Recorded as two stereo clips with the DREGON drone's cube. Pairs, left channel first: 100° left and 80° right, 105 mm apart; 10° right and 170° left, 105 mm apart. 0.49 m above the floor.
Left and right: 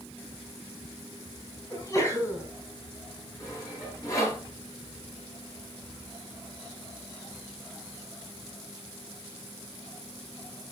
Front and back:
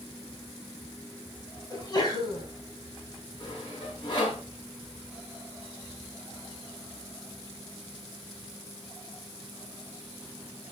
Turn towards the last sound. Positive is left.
turn(degrees=40)